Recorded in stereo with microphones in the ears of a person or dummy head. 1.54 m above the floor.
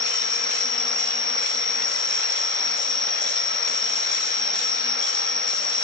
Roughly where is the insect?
Centre.